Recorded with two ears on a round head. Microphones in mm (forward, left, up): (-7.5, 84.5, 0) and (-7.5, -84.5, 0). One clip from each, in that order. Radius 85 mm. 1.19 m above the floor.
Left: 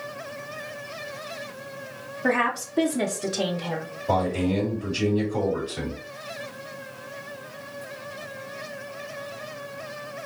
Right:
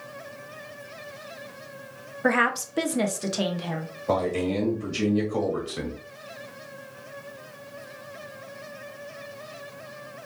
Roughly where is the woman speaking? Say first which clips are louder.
Right 1 dB; right.